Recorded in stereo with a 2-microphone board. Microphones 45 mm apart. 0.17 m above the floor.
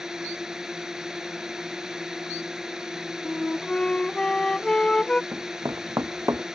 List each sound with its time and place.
0.0 s a drone: 15° right (ahead or behind)
3.2 s a flute: 20° left (ahead or behind)
5.3 s running footsteps: 65° right (ahead or behind); by 6.4 s 75° right (ahead or behind)